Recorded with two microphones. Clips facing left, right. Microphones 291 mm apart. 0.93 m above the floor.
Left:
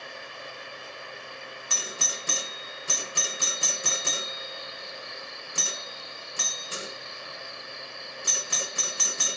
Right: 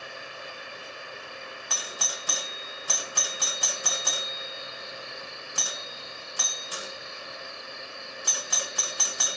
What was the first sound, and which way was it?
A doorbell, 30° left (ahead or behind).